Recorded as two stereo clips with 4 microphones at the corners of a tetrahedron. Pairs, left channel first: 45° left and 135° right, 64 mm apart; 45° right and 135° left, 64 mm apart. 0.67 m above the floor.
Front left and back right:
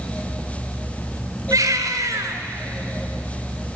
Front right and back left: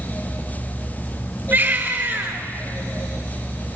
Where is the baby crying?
170° right, 3.5 m.